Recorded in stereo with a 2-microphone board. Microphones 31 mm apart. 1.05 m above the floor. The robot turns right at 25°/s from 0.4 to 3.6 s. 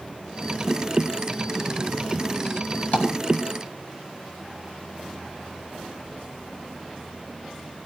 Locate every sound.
2.9 s tapping: 65° left (ahead or behind), 1.8 m